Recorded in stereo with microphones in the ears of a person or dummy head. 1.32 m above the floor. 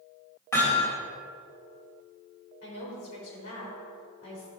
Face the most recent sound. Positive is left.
turn(degrees=85)